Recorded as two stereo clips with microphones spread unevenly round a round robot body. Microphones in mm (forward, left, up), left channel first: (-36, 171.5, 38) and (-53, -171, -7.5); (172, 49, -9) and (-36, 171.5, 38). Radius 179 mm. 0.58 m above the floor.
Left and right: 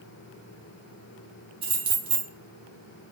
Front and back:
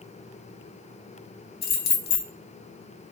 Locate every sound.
1.6 s keys jangling: 30° right, 0.6 m